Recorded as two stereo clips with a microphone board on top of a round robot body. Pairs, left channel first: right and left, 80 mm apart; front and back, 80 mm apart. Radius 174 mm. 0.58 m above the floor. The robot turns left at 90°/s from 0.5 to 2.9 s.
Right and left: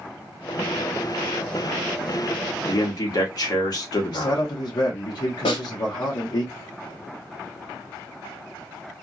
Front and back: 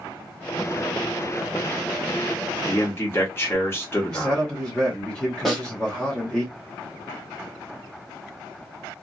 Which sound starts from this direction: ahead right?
A man speaking, at 2.7 s.